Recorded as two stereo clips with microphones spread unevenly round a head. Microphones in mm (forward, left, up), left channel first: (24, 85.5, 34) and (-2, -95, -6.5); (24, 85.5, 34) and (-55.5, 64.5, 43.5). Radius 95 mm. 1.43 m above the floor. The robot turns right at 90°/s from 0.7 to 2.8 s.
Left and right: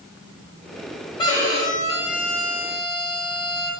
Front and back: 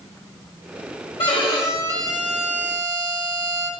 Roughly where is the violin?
Ahead.